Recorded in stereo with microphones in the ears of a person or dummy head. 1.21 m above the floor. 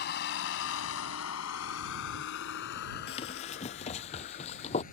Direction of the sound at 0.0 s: 55° left (ahead or behind).